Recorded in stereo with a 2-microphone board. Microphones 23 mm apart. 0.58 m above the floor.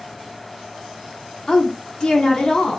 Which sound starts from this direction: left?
A woman speaking, at 1.5 s.